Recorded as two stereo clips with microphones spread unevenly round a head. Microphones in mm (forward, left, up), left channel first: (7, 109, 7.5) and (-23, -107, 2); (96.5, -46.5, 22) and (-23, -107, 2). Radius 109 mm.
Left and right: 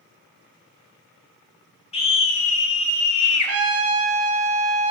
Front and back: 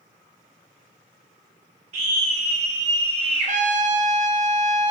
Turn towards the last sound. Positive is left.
turn(degrees=-120)